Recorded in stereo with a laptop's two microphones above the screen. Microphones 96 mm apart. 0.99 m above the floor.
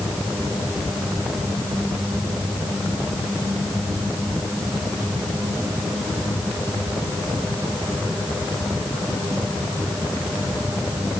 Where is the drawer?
I don't hear a drawer.